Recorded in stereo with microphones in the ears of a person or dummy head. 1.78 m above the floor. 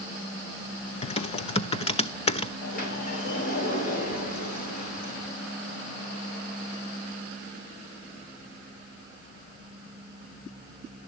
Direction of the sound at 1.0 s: 35° left (ahead or behind).